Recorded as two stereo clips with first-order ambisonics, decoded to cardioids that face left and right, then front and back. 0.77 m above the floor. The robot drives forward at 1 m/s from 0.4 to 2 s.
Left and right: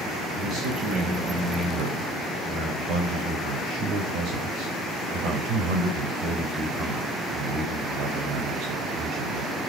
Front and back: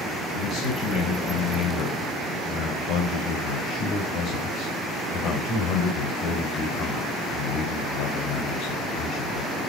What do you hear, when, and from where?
0.3 s a man speaking: 35° right, 5 m; by 9.6 s 45° right, 4 m